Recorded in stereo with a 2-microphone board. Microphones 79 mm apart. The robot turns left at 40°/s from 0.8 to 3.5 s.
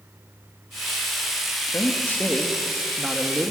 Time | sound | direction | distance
1.7 | a man speaking | 40° left | 1.8 m